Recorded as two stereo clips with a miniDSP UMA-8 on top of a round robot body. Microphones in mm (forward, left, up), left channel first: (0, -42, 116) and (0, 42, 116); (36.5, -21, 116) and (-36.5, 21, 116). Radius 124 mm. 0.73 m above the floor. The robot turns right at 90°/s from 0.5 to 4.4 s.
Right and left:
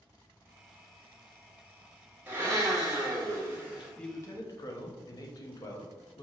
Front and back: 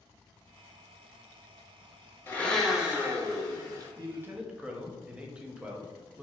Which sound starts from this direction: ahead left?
A blender, at 2.3 s.